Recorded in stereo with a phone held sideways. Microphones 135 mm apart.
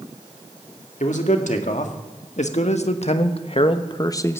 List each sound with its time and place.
1.0 s a man speaking: 65° left (ahead or behind), 2 m; by 4.4 s 15° left (ahead or behind), 0.8 m